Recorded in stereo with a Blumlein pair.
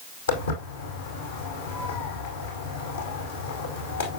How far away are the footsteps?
About 4.5 m.